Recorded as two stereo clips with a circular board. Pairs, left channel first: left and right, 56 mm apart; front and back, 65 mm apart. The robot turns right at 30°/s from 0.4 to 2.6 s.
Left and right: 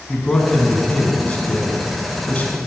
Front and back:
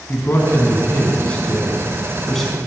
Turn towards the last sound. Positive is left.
turn(degrees=85)